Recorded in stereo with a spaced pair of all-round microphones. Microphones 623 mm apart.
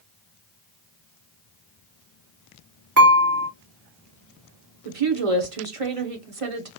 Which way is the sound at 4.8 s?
60° right (ahead or behind).